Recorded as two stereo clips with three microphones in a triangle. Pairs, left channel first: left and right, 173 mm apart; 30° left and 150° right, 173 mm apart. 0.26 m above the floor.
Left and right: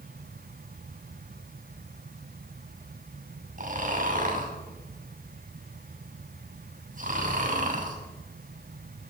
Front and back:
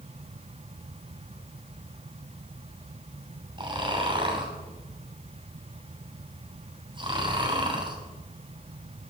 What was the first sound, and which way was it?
Snoring, 95° right.